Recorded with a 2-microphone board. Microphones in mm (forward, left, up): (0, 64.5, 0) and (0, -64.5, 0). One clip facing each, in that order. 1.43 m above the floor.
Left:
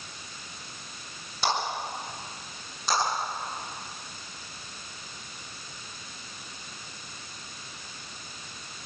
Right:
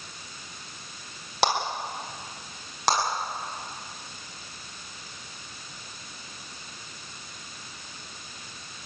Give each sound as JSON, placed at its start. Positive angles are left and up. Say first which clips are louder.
{"t": 1.4, "sound": "a clap", "louder": "right 4 dB", "side_deg": -75, "distance_m": 5.0}
{"t": 2.9, "sound": "a clap", "louder": "right 3 dB", "side_deg": -85, "distance_m": 9.0}